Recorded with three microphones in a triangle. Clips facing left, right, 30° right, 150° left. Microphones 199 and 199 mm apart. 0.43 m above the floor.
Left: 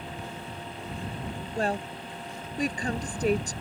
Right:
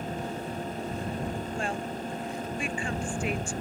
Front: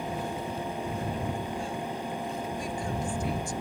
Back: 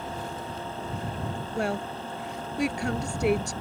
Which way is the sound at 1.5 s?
140° left.